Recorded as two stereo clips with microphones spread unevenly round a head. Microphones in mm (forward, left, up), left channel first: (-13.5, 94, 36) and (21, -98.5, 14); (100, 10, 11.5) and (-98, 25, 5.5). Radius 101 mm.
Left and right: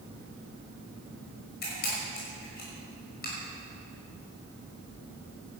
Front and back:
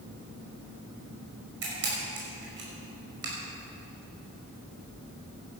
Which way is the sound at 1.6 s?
145° left.